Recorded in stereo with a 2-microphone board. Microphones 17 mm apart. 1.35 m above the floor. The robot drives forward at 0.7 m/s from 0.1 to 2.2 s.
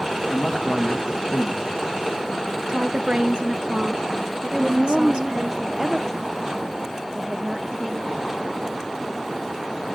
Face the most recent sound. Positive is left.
turn(degrees=-30)  # may be behind; listen again after turning